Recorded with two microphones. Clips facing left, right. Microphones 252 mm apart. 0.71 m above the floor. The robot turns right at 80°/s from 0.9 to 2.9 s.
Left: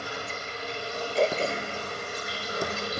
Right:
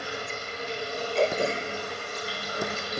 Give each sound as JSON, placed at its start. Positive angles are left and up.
{"t": 0.0, "sound": "running water", "azimuth_deg": -90, "distance_m": 6.0}
{"t": 1.1, "sound": "throat clearing", "side_deg": 5, "distance_m": 1.0}